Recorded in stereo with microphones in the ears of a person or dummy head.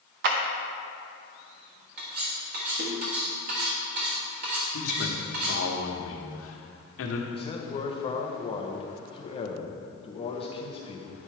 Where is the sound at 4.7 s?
75° left (ahead or behind), 1.2 m.